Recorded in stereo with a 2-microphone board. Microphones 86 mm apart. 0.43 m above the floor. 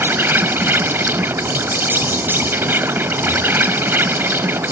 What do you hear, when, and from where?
0.0 s an insect: 25° right (ahead or behind)